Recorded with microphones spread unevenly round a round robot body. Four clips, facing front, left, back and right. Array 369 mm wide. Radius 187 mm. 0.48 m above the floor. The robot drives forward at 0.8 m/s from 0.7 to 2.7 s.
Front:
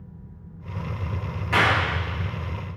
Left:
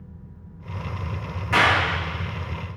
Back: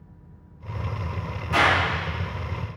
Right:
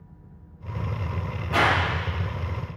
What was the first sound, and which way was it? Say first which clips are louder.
A clap: left 2 dB, back 1 dB; 45° left.